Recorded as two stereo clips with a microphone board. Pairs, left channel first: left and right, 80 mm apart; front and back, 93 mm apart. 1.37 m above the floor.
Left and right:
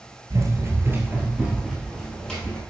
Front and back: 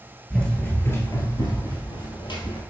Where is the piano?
I don't hear a piano.